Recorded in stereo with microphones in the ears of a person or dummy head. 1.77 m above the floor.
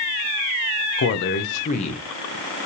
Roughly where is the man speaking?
Left.